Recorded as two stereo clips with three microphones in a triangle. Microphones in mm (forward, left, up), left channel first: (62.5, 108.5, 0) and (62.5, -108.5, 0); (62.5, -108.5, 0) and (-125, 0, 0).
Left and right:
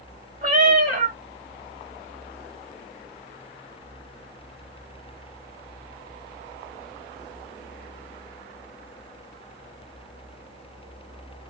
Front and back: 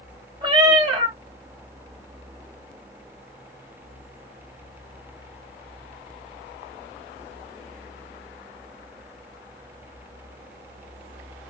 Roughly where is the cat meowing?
Behind right.